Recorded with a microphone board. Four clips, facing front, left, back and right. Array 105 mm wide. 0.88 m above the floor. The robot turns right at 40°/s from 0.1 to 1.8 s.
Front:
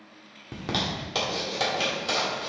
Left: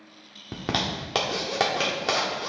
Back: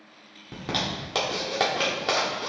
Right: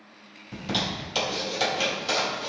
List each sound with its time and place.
0.5 s a zipper: 80° left, 1.5 m; by 2.5 s 130° left, 1.5 m